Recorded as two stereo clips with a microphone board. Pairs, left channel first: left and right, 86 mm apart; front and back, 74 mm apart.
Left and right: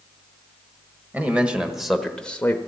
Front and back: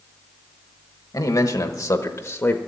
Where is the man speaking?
20° right, 1.5 m; by 2.6 s 40° left, 1.0 m.